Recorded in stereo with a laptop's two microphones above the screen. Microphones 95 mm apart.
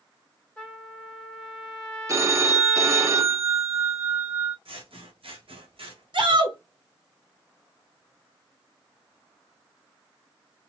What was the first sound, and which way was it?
A trumpet, 5° left (ahead or behind).